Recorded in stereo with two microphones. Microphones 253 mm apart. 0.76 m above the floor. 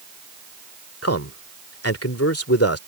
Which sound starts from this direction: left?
A man speaking, at 1.0 s.